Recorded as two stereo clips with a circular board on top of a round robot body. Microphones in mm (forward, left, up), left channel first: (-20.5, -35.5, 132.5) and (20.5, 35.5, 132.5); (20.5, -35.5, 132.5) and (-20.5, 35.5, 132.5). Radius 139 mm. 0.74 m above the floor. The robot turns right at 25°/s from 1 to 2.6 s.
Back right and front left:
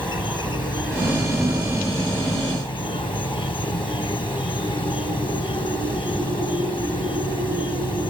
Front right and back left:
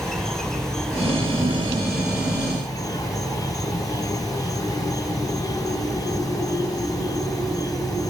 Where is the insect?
145° right; by 8.1 s 105° right.